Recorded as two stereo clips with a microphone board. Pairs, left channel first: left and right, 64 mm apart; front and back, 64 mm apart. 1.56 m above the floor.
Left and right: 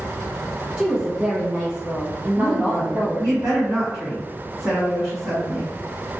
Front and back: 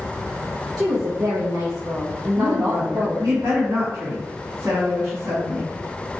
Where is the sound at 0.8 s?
165° right, 0.6 m.